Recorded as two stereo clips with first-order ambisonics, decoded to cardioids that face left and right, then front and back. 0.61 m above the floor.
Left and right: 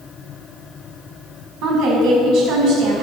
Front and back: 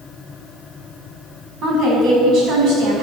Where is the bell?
No bell in this recording.